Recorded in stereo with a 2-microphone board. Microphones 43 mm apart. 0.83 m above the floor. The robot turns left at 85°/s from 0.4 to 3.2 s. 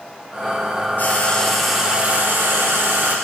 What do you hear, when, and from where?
1.0 s frying: 55° left, 2.5 m; by 3.1 s 130° right, 2.5 m